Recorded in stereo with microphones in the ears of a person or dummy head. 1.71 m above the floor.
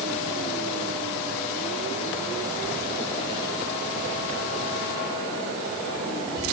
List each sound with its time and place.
Only background noise.